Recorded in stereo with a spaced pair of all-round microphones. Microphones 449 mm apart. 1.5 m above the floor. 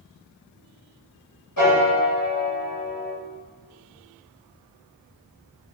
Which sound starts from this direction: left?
A piano, at 1.6 s.